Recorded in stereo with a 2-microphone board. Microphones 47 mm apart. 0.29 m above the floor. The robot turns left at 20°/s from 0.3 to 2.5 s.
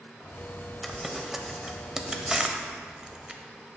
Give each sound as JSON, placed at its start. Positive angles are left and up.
{"t": 0.8, "sound": "crumpling", "side_deg": 0, "distance_m": 0.6}